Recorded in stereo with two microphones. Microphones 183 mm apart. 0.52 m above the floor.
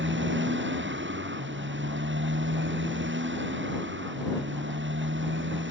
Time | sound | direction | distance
0.0 | a motorcycle | 85° right | ?